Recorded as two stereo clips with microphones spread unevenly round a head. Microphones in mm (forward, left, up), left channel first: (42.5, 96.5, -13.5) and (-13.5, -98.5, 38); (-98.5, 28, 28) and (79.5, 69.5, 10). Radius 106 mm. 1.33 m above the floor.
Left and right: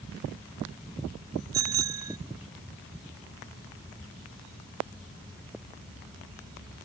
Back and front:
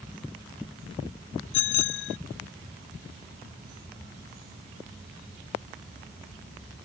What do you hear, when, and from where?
1.5 s a bicycle bell: straight behind